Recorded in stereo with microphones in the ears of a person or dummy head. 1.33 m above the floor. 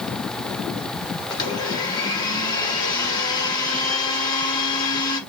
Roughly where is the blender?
Left.